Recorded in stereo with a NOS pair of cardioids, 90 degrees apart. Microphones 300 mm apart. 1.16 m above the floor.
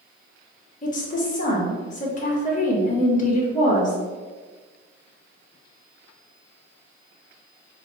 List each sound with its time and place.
0.8 s a woman speaking: 30° left, 1.3 m